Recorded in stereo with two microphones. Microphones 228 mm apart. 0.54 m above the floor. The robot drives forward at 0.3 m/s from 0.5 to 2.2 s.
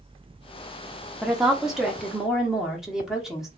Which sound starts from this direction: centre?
A woman speaking, at 1.2 s.